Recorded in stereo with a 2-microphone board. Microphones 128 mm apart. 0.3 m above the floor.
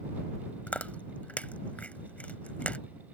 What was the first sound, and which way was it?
Chewing, 10° left (ahead or behind).